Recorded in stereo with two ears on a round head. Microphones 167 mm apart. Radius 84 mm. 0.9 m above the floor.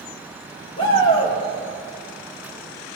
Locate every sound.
0.8 s a shout: 30° left (ahead or behind), 3 m